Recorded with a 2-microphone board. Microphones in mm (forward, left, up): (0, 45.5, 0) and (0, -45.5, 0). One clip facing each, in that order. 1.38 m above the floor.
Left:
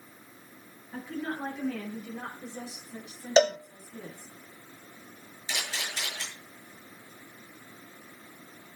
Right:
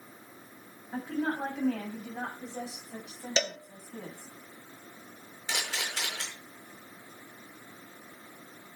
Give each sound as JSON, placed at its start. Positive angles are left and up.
{"t": 0.9, "sound": "a woman speaking", "side_deg": -80, "distance_m": 8.0}
{"t": 3.4, "sound": "a cowbell", "side_deg": 40, "distance_m": 0.7}
{"t": 5.5, "sound": "a camera shutter", "side_deg": -70, "distance_m": 6.0}